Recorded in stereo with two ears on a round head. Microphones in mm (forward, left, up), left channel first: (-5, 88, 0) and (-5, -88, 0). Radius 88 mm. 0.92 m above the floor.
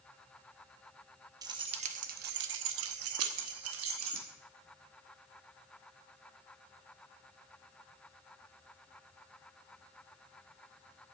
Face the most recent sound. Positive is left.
turn(degrees=-70)  # may be behind; listen again after turning